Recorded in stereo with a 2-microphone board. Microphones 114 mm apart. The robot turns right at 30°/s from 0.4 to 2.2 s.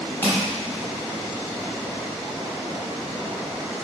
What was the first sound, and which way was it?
Crushing, 20° left (ahead or behind).